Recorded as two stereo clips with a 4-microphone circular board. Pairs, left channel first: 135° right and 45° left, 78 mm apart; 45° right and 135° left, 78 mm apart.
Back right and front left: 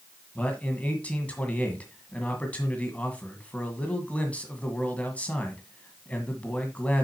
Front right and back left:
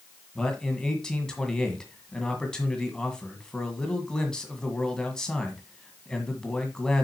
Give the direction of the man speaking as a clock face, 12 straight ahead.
4 o'clock.